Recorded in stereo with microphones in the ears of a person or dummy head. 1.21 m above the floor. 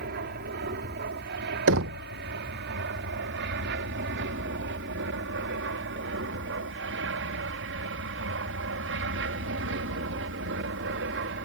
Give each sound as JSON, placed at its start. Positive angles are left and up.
{"t": 0.0, "sound": "an aircraft", "side_deg": -50}
{"t": 1.7, "sound": "knocking", "side_deg": -65}